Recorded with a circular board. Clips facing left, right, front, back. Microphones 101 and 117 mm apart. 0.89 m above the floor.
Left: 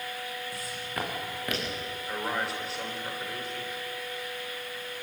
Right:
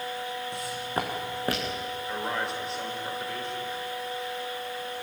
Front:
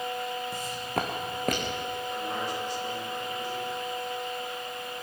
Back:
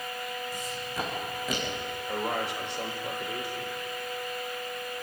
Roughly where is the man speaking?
Behind.